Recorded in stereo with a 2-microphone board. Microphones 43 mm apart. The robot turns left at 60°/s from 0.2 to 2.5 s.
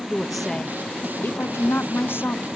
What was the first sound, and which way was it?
A woman speaking, 175° right.